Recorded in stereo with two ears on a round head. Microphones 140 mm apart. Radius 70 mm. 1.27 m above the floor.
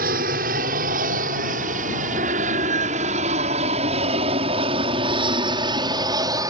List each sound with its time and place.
0.0 s an aircraft: 60° right (ahead or behind); by 6.5 s 25° right (ahead or behind)